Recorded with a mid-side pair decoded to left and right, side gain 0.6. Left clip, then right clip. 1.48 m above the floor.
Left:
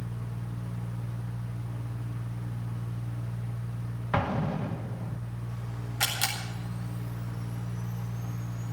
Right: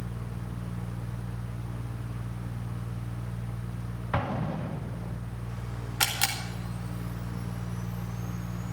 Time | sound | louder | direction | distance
0.0 | a fan | right 1 dB | 20° right | 1.2 m
4.1 | an explosion | left 2 dB | 5° left | 2 m
6.0 | a camera shutter | right 1 dB | 35° right | 4.5 m